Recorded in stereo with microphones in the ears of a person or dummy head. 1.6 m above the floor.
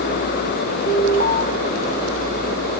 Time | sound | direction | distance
0.9 | an alarm | 35° left (ahead or behind) | 1.7 m